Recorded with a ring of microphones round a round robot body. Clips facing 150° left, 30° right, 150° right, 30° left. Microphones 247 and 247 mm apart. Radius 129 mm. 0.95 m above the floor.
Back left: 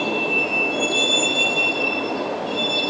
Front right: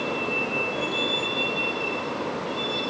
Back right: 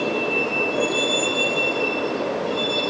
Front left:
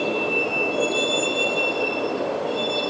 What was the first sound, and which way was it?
A vehicle, 120° left.